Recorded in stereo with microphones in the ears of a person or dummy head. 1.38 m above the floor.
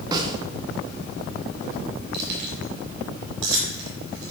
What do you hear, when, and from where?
0.1 s a snare drum: 25° right (ahead or behind), 1.1 m
2.1 s keys jangling: 75° right (ahead or behind), 4 m